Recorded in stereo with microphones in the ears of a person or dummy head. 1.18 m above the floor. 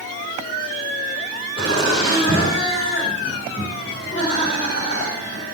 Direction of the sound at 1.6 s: 30° left (ahead or behind).